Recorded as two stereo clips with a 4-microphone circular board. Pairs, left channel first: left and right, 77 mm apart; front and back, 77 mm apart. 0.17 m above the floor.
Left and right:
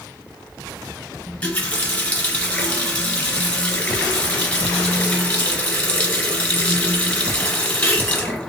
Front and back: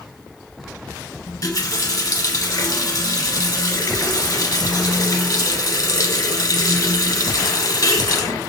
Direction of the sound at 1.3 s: 25° left.